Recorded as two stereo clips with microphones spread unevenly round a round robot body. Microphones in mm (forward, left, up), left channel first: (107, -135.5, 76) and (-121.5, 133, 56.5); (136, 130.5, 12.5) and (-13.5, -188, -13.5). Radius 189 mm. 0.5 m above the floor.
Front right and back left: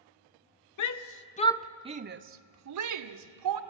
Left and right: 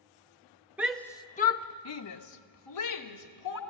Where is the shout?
35° right, 0.9 m; by 3.6 s 110° left, 1.8 m.